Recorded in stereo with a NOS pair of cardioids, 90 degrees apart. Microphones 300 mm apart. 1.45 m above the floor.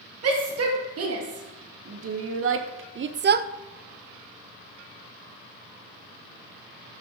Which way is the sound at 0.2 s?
55° right.